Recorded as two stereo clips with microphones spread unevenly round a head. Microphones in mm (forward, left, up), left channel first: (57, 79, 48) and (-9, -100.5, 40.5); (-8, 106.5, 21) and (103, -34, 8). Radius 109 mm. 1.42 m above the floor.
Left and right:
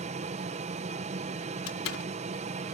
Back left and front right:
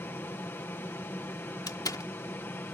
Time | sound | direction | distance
0.0 | an aircraft | 155° right | ?
1.7 | a door slam | 60° left | ?